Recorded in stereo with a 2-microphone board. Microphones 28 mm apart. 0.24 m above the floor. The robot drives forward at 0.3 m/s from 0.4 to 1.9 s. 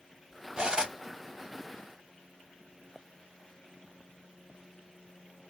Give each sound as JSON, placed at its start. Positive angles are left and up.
{"t": 0.6, "sound": "cutlery clinking", "side_deg": -35, "distance_m": 0.6}